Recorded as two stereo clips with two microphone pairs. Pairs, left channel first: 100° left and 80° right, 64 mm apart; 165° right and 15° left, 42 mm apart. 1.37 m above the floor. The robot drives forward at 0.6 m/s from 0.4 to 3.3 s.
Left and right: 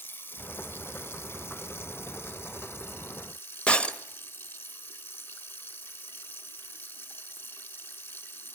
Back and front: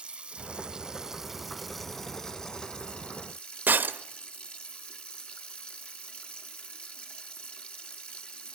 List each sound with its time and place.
0.0 s running water: 70° left, 1.6 m; by 8.6 s 145° left, 2 m
3.7 s breaking glass: 30° left, 0.9 m